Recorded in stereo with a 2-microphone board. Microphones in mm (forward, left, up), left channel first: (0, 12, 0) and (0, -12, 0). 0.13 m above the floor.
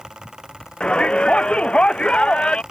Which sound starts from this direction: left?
A shout, at 0.8 s.